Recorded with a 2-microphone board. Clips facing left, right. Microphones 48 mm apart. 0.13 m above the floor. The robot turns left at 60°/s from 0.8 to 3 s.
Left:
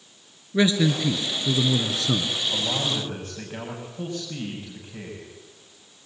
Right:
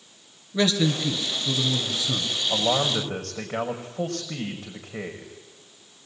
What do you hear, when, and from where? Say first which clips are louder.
0.5 s a man speaking: left 2 dB; 155° left, 2 m; by 2.3 s 60° left, 2 m
2.5 s a man speaking: right 7 dB; 70° right, 5.5 m; by 5.3 s 100° right, 5.5 m